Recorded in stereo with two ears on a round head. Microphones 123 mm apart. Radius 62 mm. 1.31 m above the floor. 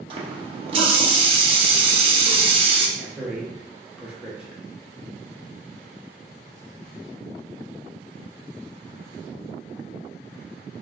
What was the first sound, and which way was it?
A running tap, 40° right (ahead or behind).